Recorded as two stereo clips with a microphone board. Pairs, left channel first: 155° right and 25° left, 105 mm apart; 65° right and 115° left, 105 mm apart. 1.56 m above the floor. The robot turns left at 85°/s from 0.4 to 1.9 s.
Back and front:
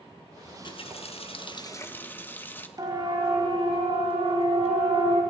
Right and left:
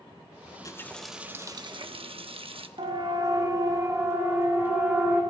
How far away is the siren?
About 2.5 m.